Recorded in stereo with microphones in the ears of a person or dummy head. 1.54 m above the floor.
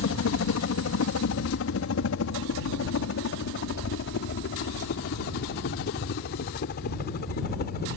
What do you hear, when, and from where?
0.0 s a helicopter: 65° left (ahead or behind); by 8.0 s 50° left (ahead or behind)